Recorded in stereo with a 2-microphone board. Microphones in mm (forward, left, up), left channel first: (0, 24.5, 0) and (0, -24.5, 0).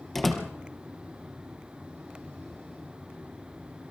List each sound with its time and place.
0.1 s a door slam: 5° left (ahead or behind), 3.5 m